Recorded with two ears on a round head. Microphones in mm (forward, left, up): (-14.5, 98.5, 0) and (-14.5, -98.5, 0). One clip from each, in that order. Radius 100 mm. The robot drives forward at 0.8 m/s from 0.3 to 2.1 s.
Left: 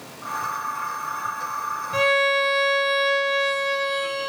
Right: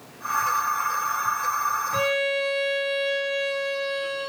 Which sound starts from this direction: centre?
A violin, at 1.9 s.